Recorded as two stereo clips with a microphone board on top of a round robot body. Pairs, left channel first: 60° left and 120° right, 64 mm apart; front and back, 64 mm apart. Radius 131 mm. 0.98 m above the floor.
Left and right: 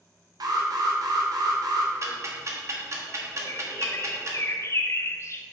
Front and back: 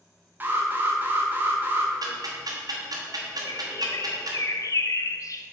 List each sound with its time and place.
0.4 s an alarm: 120° right, 1.2 m
2.0 s ticking: 160° right, 1.1 m
3.5 s a bird: 25° left, 0.5 m